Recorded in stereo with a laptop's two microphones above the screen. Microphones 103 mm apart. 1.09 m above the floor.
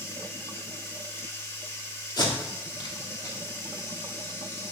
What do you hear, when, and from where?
0.0 s running water: 30° left (ahead or behind), 1.6 m
2.2 s tape being pulled: 45° left (ahead or behind), 2 m